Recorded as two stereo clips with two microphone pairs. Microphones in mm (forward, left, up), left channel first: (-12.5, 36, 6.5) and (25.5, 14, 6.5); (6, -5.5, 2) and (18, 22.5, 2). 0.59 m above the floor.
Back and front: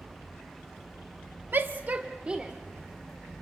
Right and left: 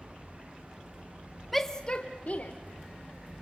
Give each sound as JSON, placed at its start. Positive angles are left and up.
{"t": 1.5, "sound": "a shout", "azimuth_deg": -25, "distance_m": 0.9}